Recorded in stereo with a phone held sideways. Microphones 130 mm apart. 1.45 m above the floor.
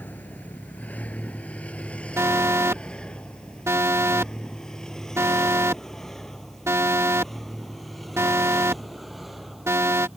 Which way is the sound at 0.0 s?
15° left (ahead or behind).